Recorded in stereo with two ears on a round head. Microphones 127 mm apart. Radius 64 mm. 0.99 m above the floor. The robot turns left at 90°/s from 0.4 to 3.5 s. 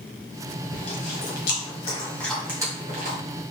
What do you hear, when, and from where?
0.7 s chewing: 35° left (ahead or behind), 1.8 m; by 3.2 s 65° right (ahead or behind), 1.8 m